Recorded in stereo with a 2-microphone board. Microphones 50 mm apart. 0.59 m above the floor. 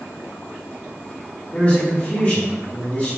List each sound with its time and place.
1.5 s a man speaking: 30° left (ahead or behind), 1.2 m